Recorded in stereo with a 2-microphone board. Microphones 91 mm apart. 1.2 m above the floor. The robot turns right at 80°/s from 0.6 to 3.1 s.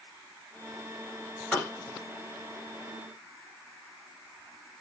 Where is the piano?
15° left (ahead or behind), 1.5 m; by 1.7 s centre (ahead or behind), 1.5 m.